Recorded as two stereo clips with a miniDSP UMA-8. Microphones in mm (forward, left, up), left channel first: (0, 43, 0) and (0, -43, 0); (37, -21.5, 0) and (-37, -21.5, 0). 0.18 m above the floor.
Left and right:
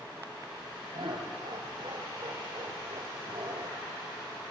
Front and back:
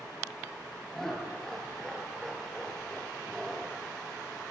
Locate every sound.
0.9 s laughter: 85° right, 3.5 m